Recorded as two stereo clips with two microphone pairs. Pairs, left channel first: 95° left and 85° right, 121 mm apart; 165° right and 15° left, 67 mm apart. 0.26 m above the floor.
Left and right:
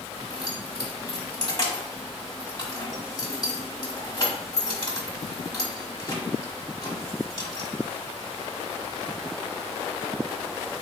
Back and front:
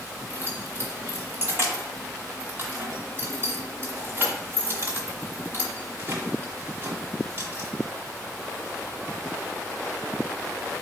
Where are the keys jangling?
55° left, 1.3 m.